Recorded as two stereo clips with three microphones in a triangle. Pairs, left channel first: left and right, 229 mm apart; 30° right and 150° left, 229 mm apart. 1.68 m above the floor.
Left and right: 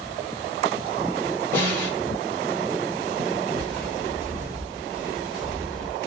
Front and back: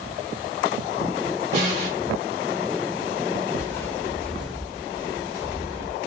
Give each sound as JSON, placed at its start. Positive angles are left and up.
{"t": 1.5, "sound": "a snare drum", "azimuth_deg": 165, "distance_m": 1.4}
{"t": 3.5, "sound": "footsteps", "azimuth_deg": -70, "distance_m": 1.7}